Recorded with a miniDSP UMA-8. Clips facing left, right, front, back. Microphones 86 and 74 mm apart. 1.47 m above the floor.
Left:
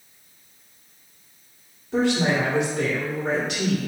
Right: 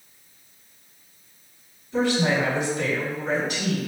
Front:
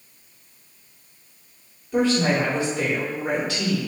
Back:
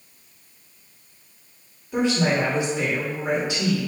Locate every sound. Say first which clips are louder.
1.9 s a woman speaking: left 1 dB, front 1 dB; 110° left, 1.8 m